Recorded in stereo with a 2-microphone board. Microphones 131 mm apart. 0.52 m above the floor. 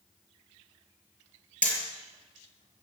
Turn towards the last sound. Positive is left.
turn(degrees=10)  # may be behind; listen again after turning